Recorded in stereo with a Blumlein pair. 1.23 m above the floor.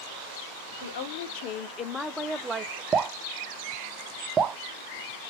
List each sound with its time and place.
0.8 s a woman speaking: 65° left, 0.8 m; by 2.8 s 30° right, 0.6 m
2.9 s dripping: 20° right, 0.5 m